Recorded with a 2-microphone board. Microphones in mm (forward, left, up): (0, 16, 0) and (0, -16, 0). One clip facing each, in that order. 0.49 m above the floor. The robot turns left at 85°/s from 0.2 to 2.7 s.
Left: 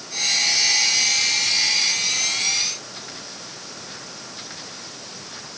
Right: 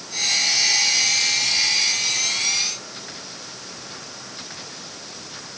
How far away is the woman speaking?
I don't hear a woman speaking.